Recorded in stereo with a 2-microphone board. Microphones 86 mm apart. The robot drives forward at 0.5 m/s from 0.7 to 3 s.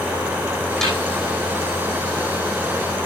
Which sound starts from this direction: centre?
A snare drum, at 0.8 s.